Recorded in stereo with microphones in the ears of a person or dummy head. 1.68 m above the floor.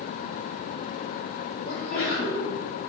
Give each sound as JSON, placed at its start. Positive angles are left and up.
{"t": 1.6, "sound": "a sneeze", "side_deg": 40, "distance_m": 3.0}